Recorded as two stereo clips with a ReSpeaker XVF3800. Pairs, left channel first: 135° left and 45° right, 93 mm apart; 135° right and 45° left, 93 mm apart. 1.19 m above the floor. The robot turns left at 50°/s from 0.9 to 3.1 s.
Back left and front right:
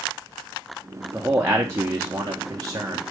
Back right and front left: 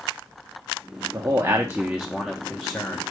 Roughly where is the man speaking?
Ahead.